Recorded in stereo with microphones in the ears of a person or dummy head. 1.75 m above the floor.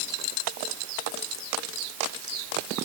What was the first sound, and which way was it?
Only background noise.